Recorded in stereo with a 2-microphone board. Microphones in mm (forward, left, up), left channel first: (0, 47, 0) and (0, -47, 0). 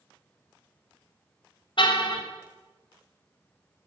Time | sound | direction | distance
1.8 | a car horn | 60° left (ahead or behind) | 4 m